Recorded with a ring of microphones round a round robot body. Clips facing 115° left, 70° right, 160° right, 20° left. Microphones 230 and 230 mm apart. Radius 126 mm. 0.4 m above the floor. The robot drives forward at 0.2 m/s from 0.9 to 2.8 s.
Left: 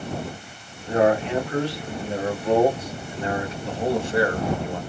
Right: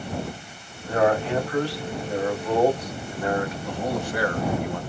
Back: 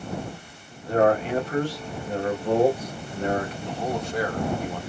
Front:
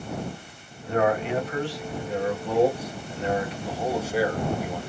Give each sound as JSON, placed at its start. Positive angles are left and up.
{"t": 0.8, "sound": "a man speaking", "azimuth_deg": 170, "distance_m": 1.2}
{"t": 3.6, "sound": "a man speaking", "azimuth_deg": 95, "distance_m": 0.9}